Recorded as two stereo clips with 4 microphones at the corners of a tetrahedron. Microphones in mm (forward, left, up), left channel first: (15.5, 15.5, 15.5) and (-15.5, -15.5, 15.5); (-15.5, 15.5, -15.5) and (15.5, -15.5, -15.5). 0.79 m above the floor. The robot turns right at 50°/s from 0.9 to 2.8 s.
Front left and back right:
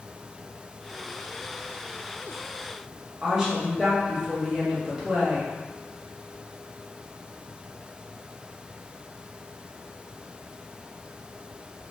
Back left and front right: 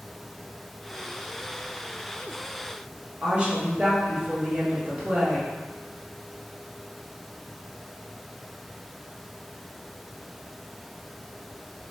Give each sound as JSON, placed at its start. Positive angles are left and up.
{"t": 3.2, "sound": "a woman speaking", "azimuth_deg": -65, "distance_m": 0.9}